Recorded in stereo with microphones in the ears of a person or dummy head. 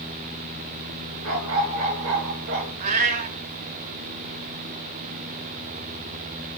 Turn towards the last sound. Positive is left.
turn(degrees=-40)  # may be behind; listen again after turning